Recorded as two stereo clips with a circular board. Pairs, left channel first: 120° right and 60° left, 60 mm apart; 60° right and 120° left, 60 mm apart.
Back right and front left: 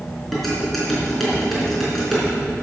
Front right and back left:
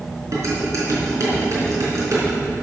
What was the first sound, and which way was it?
Dishes clattering, 150° left.